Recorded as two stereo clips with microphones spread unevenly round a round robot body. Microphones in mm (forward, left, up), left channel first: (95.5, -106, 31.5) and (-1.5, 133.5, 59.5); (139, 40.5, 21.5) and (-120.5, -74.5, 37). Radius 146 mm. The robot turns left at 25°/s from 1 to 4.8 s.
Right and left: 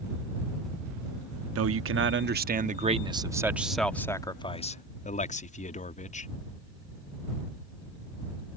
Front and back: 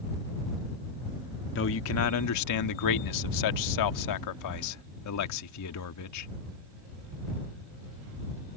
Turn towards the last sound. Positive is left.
turn(degrees=-5)